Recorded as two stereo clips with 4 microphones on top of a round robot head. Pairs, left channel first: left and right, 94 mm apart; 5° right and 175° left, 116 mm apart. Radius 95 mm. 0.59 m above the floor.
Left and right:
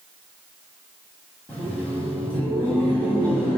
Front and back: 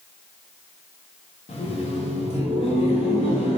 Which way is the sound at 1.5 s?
15° left.